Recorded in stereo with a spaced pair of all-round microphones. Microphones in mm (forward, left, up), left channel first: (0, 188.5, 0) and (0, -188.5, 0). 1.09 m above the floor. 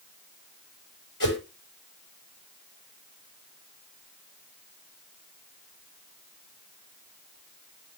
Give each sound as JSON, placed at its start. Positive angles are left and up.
{"t": 1.2, "sound": "a whoosh", "side_deg": 60, "distance_m": 5.5}